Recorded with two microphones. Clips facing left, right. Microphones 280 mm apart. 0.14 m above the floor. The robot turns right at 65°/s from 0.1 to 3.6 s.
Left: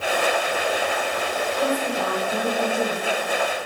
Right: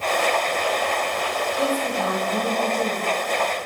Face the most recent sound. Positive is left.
turn(degrees=85)